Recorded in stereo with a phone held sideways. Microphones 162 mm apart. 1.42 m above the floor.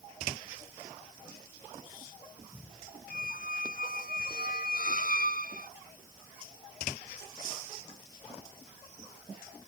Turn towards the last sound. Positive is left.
turn(degrees=60)  # may be behind; listen again after turning